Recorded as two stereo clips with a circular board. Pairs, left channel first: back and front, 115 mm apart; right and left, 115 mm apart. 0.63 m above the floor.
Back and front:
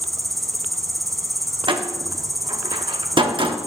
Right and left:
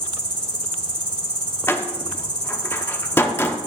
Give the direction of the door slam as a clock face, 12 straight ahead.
1 o'clock.